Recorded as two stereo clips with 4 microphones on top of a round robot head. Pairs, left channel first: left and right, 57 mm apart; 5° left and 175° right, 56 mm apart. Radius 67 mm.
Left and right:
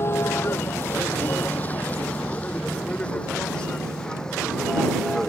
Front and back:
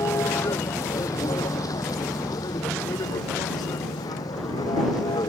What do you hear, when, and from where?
0.0 s a vehicle: 40° left; by 5.3 s 10° left